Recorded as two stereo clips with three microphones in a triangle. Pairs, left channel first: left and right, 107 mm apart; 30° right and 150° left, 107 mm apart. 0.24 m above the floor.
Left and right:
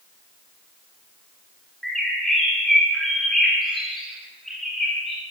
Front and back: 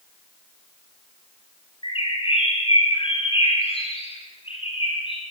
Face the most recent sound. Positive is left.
turn(degrees=5)